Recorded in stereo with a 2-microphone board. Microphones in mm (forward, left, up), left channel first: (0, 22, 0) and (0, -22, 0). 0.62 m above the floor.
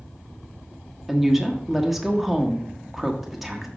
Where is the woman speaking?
5° right (ahead or behind), 1.2 m.